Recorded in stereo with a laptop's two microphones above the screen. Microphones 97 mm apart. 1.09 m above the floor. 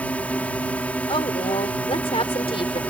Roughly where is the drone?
Centre.